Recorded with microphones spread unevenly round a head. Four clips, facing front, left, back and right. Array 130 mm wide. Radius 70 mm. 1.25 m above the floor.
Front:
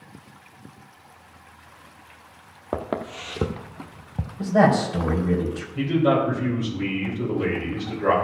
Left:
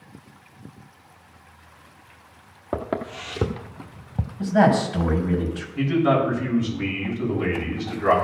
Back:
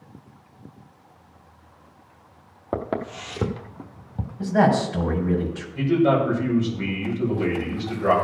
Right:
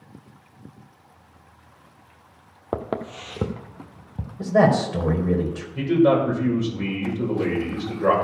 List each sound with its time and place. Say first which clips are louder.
2.7 s footsteps: left 1 dB, back 1 dB; 140° right, 1.4 m; by 4.3 s 100° left, 1.3 m
4.4 s a man speaking: even, front 1 dB; 80° right, 4.5 m
5.8 s a man speaking: right 2 dB, back 1 dB; 90° right, 5.5 m